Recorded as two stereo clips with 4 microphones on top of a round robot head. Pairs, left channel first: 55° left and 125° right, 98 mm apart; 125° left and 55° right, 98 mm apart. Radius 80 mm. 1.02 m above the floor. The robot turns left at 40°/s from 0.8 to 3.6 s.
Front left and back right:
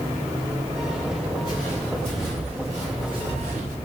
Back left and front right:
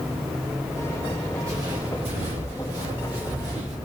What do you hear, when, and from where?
1.4 s footsteps: 5° left, 1.7 m; by 3.8 s 115° right, 2.5 m